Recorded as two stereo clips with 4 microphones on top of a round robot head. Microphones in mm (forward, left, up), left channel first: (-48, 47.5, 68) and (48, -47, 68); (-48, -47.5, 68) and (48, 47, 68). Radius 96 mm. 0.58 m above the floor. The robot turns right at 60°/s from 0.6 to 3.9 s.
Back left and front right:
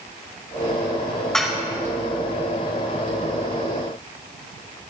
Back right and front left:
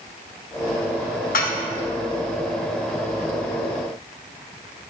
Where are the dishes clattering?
140° right, 2.0 m; by 1.6 s 120° right, 2.0 m.